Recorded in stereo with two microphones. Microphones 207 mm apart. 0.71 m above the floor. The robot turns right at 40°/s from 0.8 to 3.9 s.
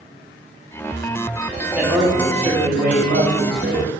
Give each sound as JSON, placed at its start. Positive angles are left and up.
{"t": 1.8, "sound": "a man speaking", "azimuth_deg": -175, "distance_m": 2.0}